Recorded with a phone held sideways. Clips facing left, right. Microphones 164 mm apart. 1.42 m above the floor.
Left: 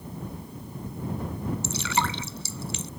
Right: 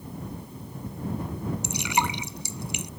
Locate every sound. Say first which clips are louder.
1.6 s dripping: right 2 dB; 15° right (ahead or behind)